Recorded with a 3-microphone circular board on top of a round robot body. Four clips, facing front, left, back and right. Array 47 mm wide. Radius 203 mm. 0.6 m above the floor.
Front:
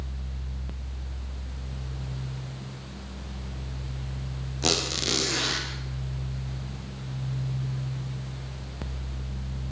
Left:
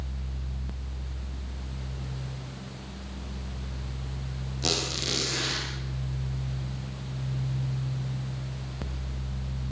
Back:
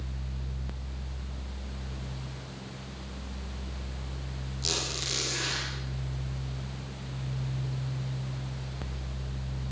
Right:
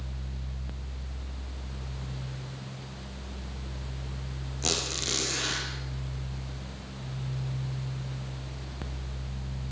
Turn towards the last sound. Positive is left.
turn(degrees=0)